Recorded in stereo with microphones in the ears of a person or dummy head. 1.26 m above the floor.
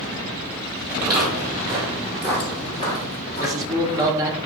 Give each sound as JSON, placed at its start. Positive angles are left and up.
{"t": 0.9, "sound": "footsteps", "side_deg": -25, "distance_m": 1.4}
{"t": 3.4, "sound": "a man speaking", "side_deg": -15, "distance_m": 0.5}